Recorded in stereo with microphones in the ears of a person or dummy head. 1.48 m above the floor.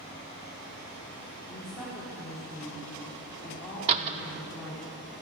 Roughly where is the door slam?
Right.